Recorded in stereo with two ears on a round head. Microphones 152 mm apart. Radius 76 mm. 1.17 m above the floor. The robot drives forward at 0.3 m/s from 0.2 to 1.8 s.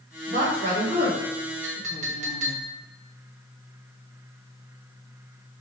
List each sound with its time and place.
0.3 s a woman speaking: 50° right (ahead or behind), 1.1 m; by 2.6 s 35° right (ahead or behind), 1.5 m
1.6 s a clink: 45° right (ahead or behind), 0.9 m